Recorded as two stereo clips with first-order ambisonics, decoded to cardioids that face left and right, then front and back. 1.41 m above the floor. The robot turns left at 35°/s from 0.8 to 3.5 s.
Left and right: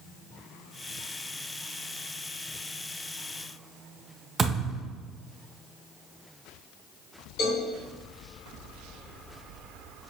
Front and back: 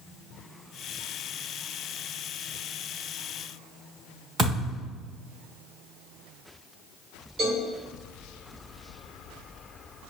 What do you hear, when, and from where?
4.4 s a thud: 150° right, 1.1 m
7.4 s a cowbell: 115° left, 1.8 m